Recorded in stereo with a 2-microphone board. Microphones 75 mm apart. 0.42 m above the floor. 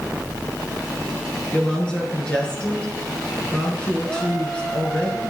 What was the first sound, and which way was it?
A woman speaking, 10° left (ahead or behind).